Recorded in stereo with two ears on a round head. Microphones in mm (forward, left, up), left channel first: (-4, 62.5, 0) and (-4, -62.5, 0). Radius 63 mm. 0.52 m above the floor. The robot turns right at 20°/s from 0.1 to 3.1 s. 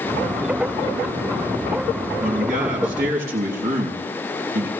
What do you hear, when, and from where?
2.2 s a man speaking: 55° right (ahead or behind), 6.5 m; by 4.7 s 75° right (ahead or behind), 6.5 m